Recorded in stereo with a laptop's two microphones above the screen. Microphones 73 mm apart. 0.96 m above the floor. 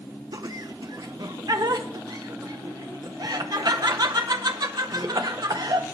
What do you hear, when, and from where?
0.3 s laughter: 60° right (ahead or behind), 0.8 m